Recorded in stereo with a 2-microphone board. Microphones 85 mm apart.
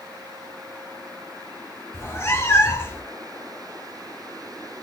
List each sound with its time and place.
1.9 s a cat meowing: 30° left (ahead or behind), 0.6 m